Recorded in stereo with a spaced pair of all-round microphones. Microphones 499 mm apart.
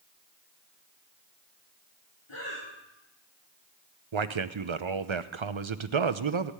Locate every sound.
2.3 s breathing: 80° left, 4 m
4.1 s a man speaking: 65° right (ahead or behind), 0.8 m